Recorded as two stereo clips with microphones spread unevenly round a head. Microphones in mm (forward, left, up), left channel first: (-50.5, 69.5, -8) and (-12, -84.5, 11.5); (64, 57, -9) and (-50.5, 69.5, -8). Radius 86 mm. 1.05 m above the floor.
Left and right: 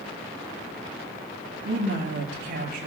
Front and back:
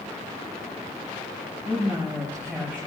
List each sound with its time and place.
1.6 s a woman speaking: 90° right, 6.5 m